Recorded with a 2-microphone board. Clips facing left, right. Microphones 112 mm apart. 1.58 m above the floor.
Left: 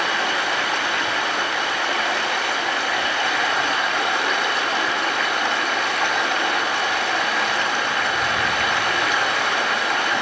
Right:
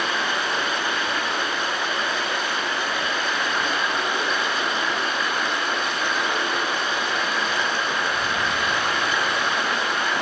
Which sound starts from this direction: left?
Running water, at 0.0 s.